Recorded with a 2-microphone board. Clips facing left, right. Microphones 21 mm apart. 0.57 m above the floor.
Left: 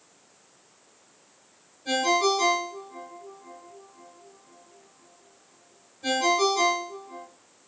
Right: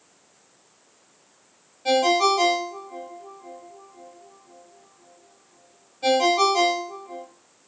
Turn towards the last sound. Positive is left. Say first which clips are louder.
# right 4 dB
turn(degrees=-65)  # may be behind; listen again after turning